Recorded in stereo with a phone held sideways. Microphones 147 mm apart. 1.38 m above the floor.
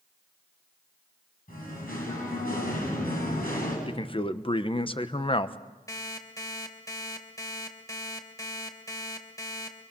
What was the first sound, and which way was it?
Singing, 75° left (ahead or behind).